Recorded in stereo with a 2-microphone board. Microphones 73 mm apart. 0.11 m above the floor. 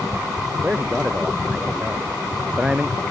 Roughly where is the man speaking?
Centre.